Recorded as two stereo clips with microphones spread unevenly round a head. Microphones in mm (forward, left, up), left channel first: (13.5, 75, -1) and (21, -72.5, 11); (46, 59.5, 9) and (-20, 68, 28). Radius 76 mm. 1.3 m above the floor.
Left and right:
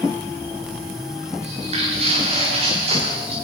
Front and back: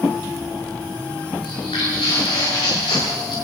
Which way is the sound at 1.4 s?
40° right.